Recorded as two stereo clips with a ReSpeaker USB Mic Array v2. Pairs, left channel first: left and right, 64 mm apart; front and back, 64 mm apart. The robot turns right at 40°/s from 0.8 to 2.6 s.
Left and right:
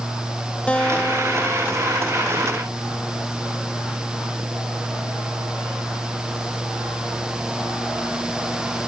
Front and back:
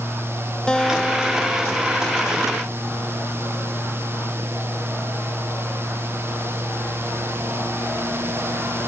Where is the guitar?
55° left; by 2.5 s 125° left.